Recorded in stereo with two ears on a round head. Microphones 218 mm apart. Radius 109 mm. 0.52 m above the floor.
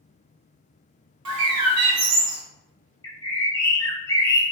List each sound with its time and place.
1.2 s a bird: 70° right (ahead or behind), 0.6 m
3.0 s a bird: 15° left (ahead or behind), 0.5 m